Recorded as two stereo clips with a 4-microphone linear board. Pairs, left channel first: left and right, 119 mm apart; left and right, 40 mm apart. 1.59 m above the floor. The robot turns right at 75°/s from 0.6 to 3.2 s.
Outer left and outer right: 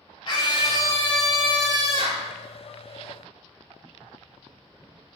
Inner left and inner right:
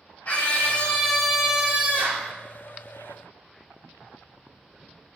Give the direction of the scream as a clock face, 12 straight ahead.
8 o'clock.